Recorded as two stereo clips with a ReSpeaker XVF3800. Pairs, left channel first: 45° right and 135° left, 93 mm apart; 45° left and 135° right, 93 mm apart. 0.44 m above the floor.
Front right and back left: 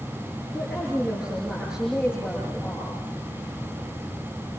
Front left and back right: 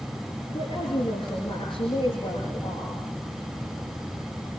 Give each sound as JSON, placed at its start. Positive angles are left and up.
{"t": 0.5, "sound": "a woman speaking", "azimuth_deg": 50, "distance_m": 6.5}